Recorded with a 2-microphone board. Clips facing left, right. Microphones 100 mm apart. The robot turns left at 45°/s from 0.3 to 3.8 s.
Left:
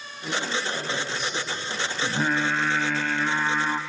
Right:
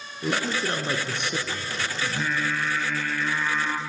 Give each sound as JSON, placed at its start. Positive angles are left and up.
{"t": 0.2, "sound": "a man speaking", "azimuth_deg": -50, "distance_m": 3.0}
{"t": 2.0, "sound": "singing", "azimuth_deg": 130, "distance_m": 1.3}